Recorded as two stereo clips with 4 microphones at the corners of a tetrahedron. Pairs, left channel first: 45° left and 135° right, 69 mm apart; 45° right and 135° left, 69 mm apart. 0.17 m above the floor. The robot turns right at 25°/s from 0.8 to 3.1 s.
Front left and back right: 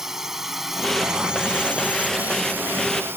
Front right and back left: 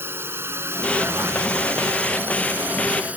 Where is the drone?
145° left; by 3.2 s 170° right.